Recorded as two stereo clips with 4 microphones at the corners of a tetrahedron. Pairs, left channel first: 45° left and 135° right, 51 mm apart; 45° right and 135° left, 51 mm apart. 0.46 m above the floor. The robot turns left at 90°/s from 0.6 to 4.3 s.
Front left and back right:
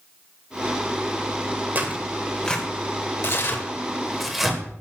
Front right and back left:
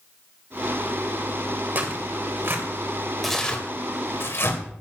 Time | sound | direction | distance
1.8 | tearing paper | straight behind | 2.5 m